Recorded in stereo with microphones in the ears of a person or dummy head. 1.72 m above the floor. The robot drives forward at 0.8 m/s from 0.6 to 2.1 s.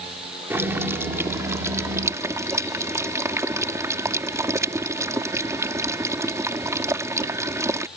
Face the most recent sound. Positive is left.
turn(degrees=-15)  # may be behind; listen again after turning